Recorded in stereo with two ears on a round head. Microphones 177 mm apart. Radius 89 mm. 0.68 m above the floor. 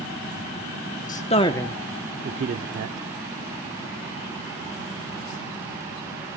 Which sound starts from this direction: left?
A man speaking, at 1.1 s.